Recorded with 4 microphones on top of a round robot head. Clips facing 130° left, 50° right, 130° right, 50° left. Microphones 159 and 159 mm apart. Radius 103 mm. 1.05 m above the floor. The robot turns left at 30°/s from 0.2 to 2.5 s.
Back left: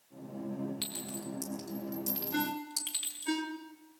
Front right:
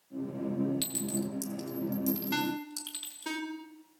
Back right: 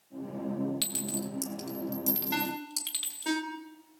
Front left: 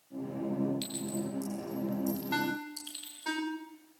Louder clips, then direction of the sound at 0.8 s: Front right 7 dB, front left 1 dB; 95° right.